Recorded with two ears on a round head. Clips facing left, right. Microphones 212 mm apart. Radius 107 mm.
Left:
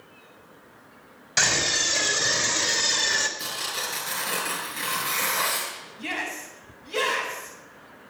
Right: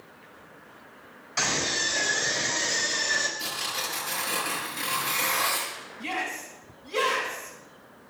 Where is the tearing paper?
40° left (ahead or behind), 7.5 m.